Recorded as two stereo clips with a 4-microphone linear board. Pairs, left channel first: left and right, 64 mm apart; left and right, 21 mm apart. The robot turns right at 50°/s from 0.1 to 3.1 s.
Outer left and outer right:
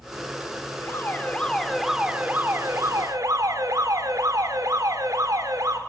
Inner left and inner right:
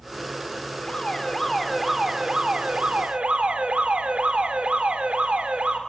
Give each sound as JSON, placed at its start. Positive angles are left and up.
{"t": 0.8, "sound": "an alarm", "azimuth_deg": 135, "distance_m": 3.5}